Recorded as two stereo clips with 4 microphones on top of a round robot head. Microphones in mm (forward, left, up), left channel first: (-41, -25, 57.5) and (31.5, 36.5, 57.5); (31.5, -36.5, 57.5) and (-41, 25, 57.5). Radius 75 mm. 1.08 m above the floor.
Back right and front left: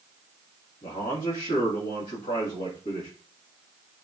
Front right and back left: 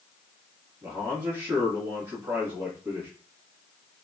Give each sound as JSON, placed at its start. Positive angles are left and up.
{"t": 0.8, "sound": "a man speaking", "azimuth_deg": -160, "distance_m": 1.5}